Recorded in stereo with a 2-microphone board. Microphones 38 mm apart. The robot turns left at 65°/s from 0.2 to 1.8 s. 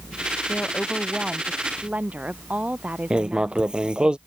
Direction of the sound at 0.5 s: 45° left.